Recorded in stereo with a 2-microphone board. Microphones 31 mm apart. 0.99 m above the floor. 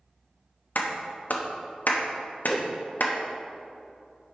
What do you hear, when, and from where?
0.8 s a clap: 75° left (ahead or behind), 1.1 m
2.5 s a whoosh: centre (ahead or behind), 0.5 m